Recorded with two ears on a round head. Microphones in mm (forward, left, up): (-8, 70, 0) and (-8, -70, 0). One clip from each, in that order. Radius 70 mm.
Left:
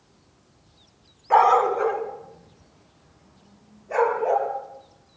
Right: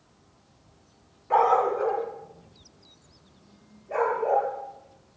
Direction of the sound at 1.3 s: 35° left (ahead or behind).